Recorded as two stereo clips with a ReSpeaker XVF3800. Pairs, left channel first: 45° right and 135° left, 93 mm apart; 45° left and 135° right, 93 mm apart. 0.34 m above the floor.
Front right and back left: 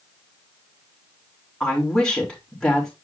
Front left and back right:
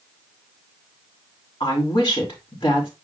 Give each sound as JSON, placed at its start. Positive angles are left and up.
{"t": 1.6, "sound": "a woman speaking", "azimuth_deg": 40, "distance_m": 4.0}